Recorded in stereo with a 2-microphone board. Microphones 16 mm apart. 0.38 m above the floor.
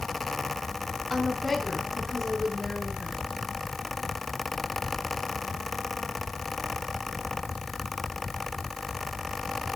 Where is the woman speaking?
15° left (ahead or behind), 3.5 m; by 3.2 s centre (ahead or behind), 5 m.